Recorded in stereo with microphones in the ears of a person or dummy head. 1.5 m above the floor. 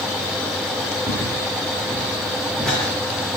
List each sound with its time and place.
1.1 s footsteps: 5° right (ahead or behind), 5 m; by 3.4 s 5° left (ahead or behind), 4.5 m